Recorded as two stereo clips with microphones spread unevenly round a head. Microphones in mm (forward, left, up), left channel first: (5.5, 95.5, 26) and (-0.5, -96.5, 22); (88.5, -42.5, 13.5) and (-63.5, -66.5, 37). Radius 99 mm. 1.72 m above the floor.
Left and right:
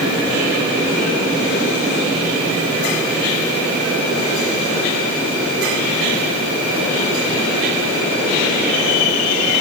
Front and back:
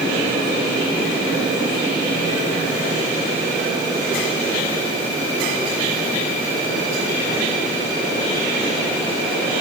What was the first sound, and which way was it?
Only background noise.